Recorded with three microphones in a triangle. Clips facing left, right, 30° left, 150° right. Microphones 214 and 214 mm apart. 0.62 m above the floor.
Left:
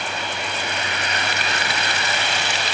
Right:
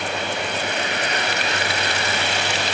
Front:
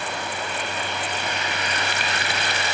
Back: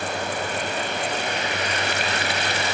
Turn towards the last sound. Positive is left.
No sound to turn to.